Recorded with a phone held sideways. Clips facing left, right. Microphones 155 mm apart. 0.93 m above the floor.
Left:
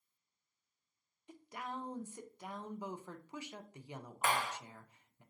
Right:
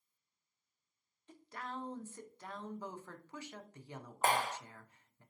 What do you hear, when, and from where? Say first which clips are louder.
1.3 s a woman speaking: left 1 dB; 15° left (ahead or behind), 0.6 m
4.2 s a clap: right 3 dB; 40° right (ahead or behind), 0.6 m